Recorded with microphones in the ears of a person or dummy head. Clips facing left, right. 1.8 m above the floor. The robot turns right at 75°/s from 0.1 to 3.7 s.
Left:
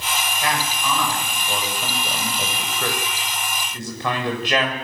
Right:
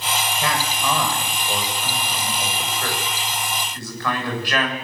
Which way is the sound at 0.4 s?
85° right.